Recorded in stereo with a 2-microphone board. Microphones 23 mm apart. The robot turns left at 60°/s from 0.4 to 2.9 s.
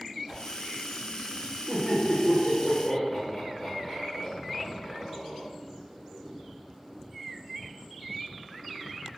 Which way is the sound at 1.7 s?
45° right (ahead or behind).